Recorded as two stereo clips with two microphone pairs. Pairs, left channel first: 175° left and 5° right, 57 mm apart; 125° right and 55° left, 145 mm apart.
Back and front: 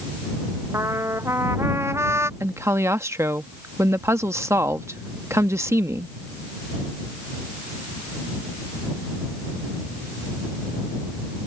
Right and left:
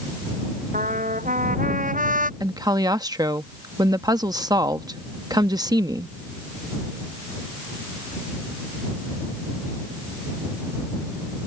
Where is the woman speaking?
5° left.